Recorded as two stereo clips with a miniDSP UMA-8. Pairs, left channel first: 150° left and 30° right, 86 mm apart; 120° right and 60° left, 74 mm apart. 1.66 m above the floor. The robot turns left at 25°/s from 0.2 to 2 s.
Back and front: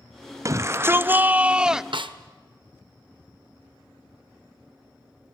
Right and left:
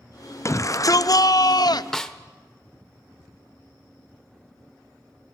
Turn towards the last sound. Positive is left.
turn(degrees=-35)